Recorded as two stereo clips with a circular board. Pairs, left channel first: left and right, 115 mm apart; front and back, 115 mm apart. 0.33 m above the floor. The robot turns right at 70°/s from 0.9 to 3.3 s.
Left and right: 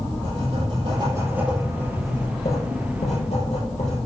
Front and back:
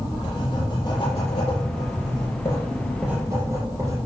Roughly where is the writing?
Ahead right.